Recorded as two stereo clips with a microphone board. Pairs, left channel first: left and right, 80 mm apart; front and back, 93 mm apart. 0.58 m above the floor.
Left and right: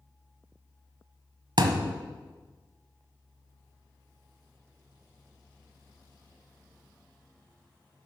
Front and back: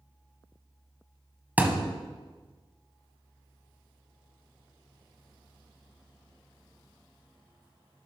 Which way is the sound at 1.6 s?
110° right.